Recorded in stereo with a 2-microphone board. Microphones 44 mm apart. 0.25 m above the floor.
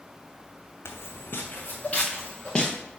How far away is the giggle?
I don't hear a giggle.